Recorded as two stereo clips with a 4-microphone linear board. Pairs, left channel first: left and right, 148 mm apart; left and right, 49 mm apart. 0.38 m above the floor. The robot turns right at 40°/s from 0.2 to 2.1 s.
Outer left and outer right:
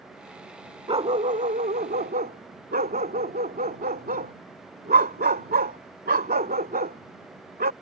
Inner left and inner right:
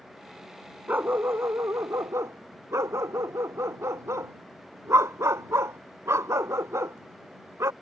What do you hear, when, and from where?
0.9 s a dog barking: 140° right; by 7.7 s 90° right